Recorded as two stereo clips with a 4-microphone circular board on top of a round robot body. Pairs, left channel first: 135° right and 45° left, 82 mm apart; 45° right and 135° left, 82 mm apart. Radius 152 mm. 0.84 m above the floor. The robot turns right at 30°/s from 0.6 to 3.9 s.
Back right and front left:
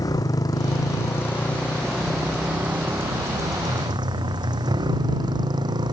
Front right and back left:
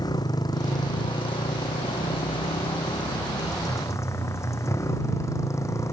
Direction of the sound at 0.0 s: 90° right.